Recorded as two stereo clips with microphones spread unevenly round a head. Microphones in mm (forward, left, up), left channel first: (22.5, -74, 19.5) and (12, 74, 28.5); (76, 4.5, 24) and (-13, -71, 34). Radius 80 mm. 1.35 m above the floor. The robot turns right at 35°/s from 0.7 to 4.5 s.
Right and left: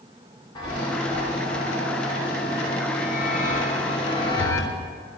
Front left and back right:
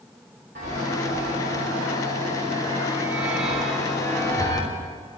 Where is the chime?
150° right, 3.5 m; by 4.7 s 20° right, 3.5 m.